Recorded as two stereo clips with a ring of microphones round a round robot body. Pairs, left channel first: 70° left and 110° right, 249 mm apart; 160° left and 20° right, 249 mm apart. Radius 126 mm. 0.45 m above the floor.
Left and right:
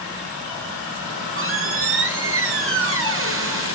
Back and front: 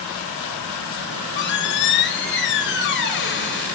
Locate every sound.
1.1 s a squeak: 155° right, 3 m